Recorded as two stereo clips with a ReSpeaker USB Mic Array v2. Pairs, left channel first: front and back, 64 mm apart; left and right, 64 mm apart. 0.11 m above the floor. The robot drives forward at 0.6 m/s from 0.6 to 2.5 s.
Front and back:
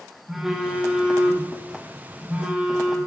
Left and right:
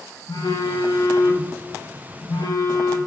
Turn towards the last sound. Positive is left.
turn(degrees=110)